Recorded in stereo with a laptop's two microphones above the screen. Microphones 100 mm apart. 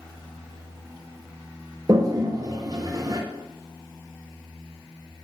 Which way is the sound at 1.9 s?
40° right (ahead or behind).